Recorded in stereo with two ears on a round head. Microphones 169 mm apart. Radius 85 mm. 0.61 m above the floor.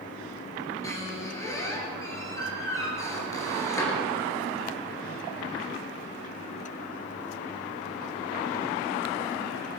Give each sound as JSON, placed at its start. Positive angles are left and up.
{"t": 0.8, "sound": "a squeak", "side_deg": 15, "distance_m": 3.5}